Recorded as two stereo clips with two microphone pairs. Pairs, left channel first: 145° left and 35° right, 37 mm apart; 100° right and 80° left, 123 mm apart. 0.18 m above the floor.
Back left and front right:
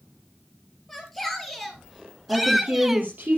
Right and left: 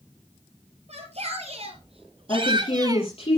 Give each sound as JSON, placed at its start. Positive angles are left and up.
{"t": 0.9, "sound": "a shout", "azimuth_deg": 60, "distance_m": 3.5}
{"t": 2.3, "sound": "a woman speaking", "azimuth_deg": -65, "distance_m": 5.0}